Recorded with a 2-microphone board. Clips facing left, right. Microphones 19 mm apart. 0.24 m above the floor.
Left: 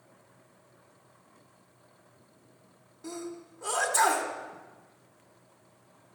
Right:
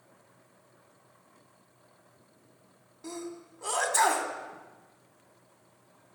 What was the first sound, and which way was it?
A sneeze, 20° right (ahead or behind).